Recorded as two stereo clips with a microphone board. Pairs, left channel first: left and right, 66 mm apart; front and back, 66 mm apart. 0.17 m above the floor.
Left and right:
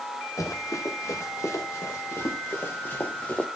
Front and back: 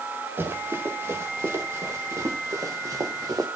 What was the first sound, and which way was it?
Running footsteps, 125° left.